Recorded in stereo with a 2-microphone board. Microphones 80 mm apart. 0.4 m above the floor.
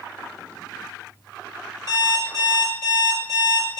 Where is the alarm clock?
50° right (ahead or behind), 3 m.